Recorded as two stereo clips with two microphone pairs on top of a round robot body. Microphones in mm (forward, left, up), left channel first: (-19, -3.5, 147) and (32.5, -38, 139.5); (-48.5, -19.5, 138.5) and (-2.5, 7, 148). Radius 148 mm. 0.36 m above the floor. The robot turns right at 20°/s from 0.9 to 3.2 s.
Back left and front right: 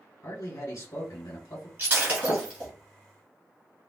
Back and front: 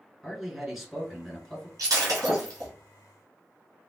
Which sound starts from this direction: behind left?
A man speaking, at 0.2 s.